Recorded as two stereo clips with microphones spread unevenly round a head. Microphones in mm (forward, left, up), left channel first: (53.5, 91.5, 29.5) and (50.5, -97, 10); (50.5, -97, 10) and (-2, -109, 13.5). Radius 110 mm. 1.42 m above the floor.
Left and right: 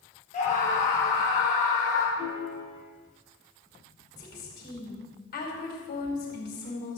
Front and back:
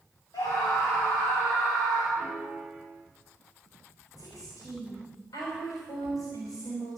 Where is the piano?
90° right, 6 m.